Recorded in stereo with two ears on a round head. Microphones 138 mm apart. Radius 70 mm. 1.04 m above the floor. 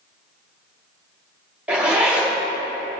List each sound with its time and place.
1.7 s a zipper: 10° right (ahead or behind), 2.5 m